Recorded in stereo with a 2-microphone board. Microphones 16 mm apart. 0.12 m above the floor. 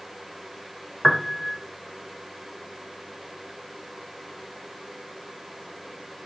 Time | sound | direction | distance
1.0 | a piano | 10° left (ahead or behind) | 0.8 m